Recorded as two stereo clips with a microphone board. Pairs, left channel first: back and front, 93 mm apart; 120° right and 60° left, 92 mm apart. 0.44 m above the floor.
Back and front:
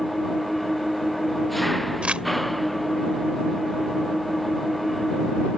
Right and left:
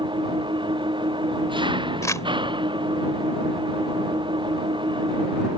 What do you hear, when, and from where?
0.0 s an engine running: 90° left
2.0 s crumpling: 75° right